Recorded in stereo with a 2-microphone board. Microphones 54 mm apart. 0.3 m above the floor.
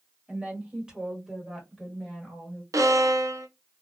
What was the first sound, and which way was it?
A woman speaking, 20° right (ahead or behind).